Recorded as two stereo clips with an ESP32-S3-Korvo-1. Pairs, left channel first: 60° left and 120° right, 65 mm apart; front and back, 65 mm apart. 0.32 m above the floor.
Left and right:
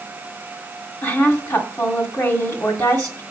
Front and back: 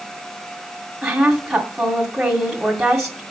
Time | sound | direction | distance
1.0 | a woman speaking | 95° left | 1.7 m